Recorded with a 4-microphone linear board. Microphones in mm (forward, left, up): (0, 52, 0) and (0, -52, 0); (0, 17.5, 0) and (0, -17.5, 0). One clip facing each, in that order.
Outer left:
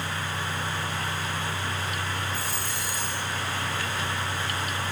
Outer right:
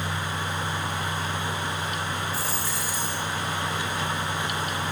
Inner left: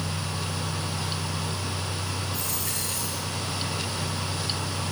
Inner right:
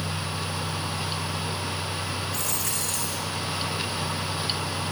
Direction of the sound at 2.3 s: 85° right.